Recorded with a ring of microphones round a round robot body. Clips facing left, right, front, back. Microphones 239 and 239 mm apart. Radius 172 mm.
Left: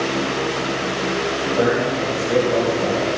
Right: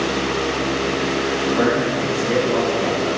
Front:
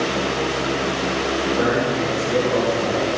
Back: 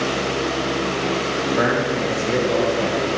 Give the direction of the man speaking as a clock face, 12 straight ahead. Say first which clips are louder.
Left 2 dB, even; 6 o'clock.